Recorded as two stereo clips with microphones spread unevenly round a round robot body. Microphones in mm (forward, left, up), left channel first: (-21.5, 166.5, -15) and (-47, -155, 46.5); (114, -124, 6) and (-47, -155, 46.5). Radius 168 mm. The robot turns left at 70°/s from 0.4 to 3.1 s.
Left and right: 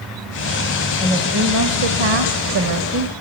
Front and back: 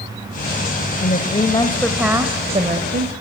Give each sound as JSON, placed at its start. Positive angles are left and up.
{"t": 1.0, "sound": "a woman speaking", "azimuth_deg": -10, "distance_m": 1.9}